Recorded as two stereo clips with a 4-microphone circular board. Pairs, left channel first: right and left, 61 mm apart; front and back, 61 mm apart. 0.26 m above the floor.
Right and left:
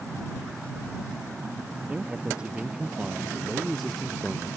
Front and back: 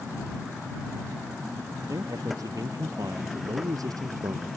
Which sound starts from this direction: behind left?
A man speaking, at 1.9 s.